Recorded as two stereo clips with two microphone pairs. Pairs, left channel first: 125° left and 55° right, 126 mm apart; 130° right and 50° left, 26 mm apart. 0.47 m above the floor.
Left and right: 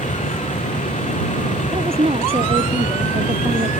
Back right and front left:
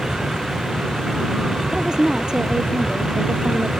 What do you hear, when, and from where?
0.0 s a vehicle: 110° left
1.7 s a woman speaking: 15° right